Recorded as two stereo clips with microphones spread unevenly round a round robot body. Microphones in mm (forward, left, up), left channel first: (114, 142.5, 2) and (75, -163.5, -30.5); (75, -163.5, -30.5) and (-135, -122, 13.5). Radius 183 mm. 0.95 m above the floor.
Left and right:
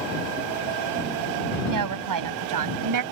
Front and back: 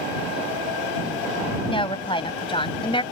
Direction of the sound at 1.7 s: 80° right.